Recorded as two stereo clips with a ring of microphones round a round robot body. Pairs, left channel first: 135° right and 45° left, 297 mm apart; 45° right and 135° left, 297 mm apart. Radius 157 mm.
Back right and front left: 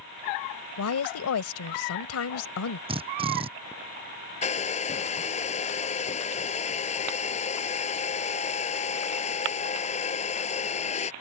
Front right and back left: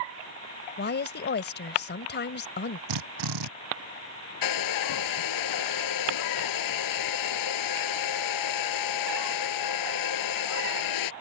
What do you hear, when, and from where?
0.8 s a woman speaking: 100° right
2.9 s a drill: 120° left
4.4 s a hair dryer: 65° right